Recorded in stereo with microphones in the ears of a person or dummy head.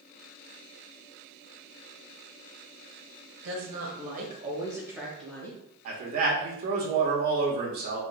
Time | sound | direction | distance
3.4 | a woman speaking | 60° right (ahead or behind) | 1.5 m
5.8 | a man speaking | 45° right (ahead or behind) | 1.1 m